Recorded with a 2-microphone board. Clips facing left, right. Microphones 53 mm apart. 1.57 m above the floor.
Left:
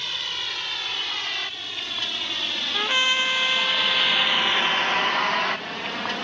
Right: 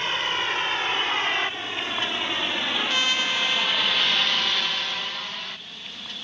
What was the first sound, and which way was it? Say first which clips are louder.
A vehicle: right 6 dB; 35° right (ahead or behind).